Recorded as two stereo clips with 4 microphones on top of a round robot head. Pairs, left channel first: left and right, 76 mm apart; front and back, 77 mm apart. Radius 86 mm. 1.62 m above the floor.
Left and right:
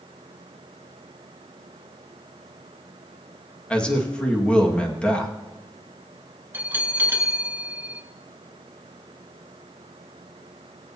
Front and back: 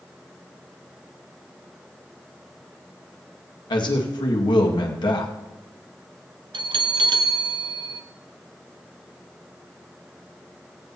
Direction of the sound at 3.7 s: 15° left.